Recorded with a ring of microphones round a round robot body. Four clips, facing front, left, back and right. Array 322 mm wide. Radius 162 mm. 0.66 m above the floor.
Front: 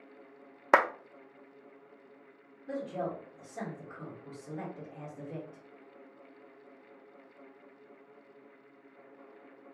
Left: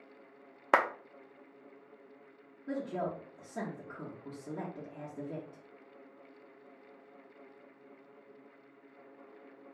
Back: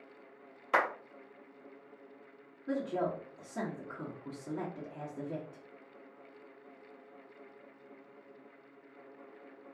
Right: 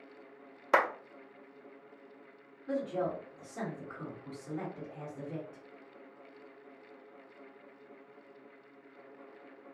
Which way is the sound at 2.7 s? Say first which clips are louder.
Right 2 dB, back 2 dB; 130° left.